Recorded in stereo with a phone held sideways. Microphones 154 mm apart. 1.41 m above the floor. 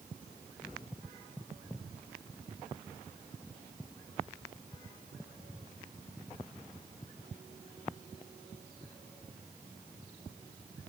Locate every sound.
Only background noise.